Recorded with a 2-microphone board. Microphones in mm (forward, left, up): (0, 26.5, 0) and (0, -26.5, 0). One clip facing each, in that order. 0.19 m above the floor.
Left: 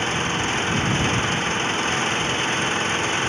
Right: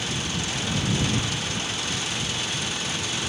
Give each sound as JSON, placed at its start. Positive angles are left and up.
{"t": 0.0, "sound": "an engine running", "side_deg": 40}